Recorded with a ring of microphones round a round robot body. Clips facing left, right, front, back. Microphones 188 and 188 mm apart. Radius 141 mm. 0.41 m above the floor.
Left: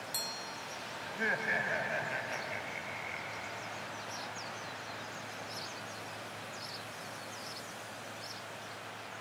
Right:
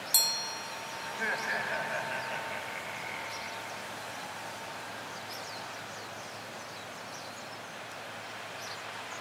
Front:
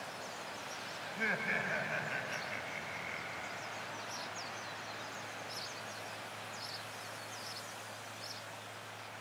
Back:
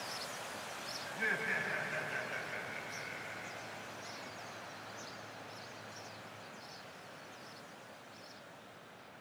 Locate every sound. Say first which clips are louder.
1.1 s laughter: left 1 dB, front 1 dB; 30° left, 2.5 m; by 3.9 s 5° right, 3.5 m